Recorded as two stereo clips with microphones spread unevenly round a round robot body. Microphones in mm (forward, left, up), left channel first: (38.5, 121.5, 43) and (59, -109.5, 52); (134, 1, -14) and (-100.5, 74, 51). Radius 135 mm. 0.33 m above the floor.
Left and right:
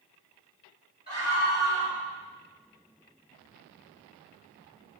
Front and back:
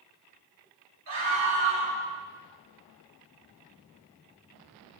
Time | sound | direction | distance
1.1 | a scream | 160° left | 6 m